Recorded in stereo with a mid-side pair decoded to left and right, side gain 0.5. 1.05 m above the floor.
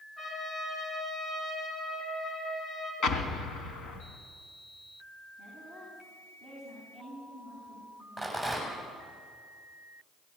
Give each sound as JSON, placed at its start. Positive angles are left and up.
{"t": 0.2, "sound": "a trumpet", "azimuth_deg": 30, "distance_m": 9.0}
{"t": 3.0, "sound": "an explosion", "azimuth_deg": 60, "distance_m": 3.0}
{"t": 5.4, "sound": "a woman speaking", "azimuth_deg": 30, "distance_m": 9.0}
{"t": 8.2, "sound": "a rattle", "azimuth_deg": 5, "distance_m": 8.0}